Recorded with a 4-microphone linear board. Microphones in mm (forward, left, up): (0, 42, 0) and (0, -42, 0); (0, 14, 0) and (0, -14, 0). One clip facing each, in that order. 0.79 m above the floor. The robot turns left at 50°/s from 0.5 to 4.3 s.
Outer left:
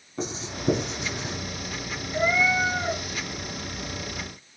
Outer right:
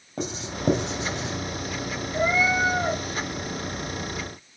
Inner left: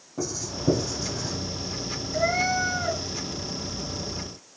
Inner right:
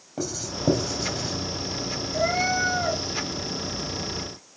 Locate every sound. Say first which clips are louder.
0.2 s writing: outer right 1 dB, inner right 1 dB; 55° right (ahead or behind), 3.5 m; by 1.4 s 80° right, 3.5 m
2.1 s a cat meowing: even, even; straight ahead, 1.8 m; by 3.0 s 45° right, 1.8 m